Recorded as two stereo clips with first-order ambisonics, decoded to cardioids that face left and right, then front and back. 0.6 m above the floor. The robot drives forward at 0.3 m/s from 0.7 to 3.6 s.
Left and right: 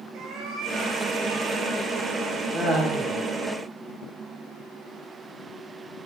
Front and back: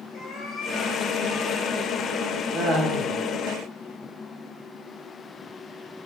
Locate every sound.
0.1 s a cat meowing: 55° right, 0.9 m; by 2.4 s 95° right, 0.7 m
2.5 s laughter: 155° right, 0.7 m; by 3.1 s 165° right, 0.8 m